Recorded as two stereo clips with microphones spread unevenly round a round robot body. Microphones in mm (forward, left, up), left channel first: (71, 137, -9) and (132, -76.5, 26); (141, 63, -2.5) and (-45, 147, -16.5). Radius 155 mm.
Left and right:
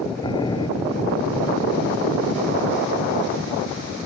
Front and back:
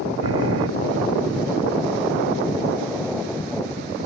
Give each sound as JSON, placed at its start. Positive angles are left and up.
{"t": 0.2, "sound": "boiling", "azimuth_deg": -175}